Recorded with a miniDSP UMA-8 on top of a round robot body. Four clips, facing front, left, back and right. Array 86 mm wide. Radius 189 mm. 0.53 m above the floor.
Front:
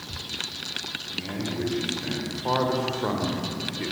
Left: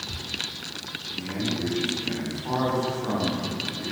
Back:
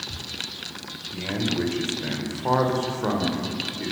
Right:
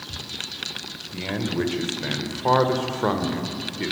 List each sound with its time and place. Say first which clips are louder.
1.1 s a man speaking: right 4 dB, back 5 dB; 115° right, 4 m; by 3.9 s 80° right, 3 m